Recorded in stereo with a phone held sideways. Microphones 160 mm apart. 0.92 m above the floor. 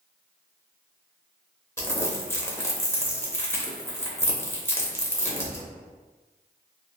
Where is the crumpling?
15° left (ahead or behind), 0.6 m.